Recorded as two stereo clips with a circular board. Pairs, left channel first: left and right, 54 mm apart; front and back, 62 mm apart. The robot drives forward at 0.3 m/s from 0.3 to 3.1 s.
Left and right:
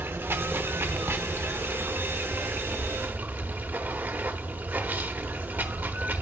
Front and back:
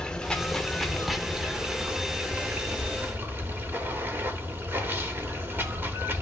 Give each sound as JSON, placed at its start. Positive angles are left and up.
{"t": 0.0, "sound": "running water", "azimuth_deg": -70, "distance_m": 0.9}